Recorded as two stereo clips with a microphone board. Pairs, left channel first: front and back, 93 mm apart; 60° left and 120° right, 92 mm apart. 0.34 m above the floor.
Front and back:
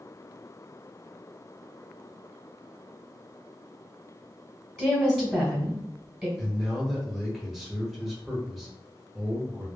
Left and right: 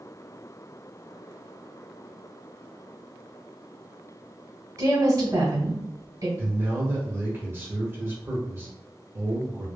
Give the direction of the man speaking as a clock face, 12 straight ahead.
3 o'clock.